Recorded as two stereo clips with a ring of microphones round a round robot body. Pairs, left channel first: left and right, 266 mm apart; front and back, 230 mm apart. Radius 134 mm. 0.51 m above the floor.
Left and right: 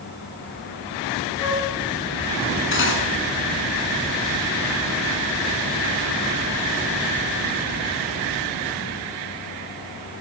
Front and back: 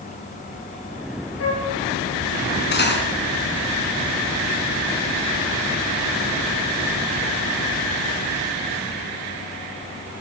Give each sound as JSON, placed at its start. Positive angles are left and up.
{"t": 1.4, "sound": "a flute", "azimuth_deg": 20, "distance_m": 8.5}
{"t": 2.7, "sound": "cutlery clinking", "azimuth_deg": 45, "distance_m": 4.0}